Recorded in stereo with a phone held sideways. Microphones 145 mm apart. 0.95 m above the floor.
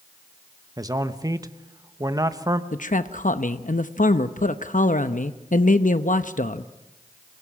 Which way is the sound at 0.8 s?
25° right (ahead or behind).